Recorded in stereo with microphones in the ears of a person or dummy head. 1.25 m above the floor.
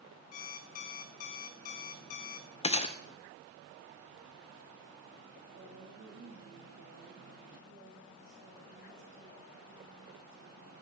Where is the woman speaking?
70° right (ahead or behind), 5 m.